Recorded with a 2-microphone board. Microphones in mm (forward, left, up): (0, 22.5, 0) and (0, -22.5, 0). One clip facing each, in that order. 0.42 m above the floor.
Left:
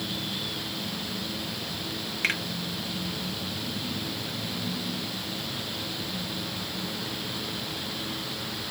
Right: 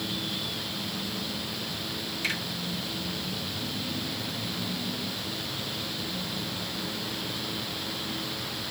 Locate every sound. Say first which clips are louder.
2.2 s a finger snap: left 4 dB; 45° left (ahead or behind), 1.7 m